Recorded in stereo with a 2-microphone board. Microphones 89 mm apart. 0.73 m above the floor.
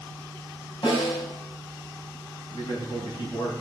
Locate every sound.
0.8 s a snare drum: 60° left (ahead or behind), 5.5 m
2.5 s a man speaking: 55° left (ahead or behind), 4.5 m